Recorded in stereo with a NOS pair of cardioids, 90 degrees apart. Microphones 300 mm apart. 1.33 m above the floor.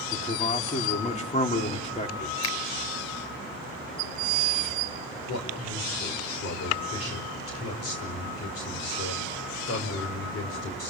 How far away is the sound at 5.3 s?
About 5 m.